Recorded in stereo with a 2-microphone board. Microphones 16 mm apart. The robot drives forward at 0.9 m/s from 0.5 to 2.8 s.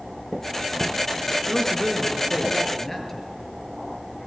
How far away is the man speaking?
About 3 m.